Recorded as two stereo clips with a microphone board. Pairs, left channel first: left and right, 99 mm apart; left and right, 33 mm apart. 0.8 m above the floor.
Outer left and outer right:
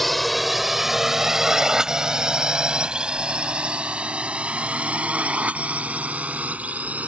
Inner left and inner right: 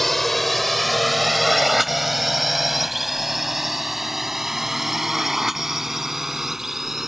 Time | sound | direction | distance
0.0 | a drone | centre (ahead or behind) | ?